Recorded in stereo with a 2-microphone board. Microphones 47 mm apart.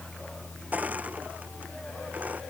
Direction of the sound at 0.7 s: 35° right (ahead or behind).